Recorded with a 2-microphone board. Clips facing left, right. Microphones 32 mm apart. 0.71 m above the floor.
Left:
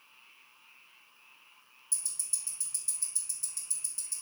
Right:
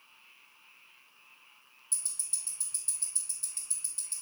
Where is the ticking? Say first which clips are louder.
Even; 40° right (ahead or behind), 0.9 m.